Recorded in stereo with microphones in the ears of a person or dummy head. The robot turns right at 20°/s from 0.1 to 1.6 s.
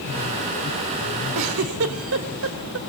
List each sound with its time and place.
1.4 s a giggle: 70° right (ahead or behind), 2.5 m; by 2.8 s 75° right (ahead or behind), 2.5 m